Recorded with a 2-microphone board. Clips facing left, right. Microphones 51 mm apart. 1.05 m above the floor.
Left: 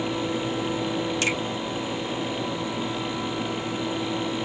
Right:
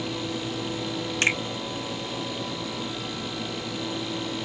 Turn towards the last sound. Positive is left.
turn(degrees=-35)  # may be behind; listen again after turning